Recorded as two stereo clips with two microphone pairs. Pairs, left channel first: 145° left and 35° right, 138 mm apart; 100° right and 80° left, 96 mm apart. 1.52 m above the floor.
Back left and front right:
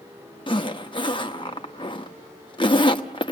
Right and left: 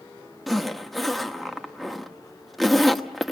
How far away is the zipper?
About 1.2 m.